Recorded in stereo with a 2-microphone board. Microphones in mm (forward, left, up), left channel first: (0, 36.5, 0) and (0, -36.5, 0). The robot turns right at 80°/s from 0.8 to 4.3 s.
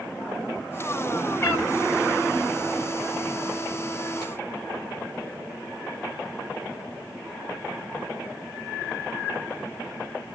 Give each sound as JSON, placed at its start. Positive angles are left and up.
{"t": 1.4, "sound": "a cat meowing", "side_deg": 40, "distance_m": 1.1}